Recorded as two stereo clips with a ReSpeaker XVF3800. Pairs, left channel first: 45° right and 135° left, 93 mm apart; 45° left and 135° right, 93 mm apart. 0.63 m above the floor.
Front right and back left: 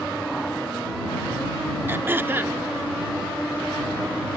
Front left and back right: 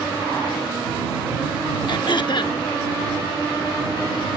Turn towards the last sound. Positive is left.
turn(degrees=70)